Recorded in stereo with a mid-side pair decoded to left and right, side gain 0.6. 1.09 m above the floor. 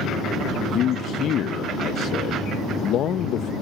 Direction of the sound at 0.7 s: 55° left.